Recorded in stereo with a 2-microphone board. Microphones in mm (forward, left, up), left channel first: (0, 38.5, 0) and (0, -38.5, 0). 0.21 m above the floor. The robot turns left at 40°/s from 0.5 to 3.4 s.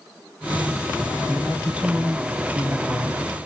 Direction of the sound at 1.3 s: 10° right (ahead or behind).